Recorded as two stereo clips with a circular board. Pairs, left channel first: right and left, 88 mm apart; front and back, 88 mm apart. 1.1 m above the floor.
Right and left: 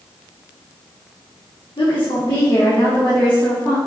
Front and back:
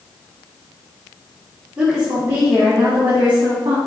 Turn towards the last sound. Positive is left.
turn(degrees=-160)